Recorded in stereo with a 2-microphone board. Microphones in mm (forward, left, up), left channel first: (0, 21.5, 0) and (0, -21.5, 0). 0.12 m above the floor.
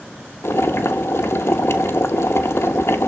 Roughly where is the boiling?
Left.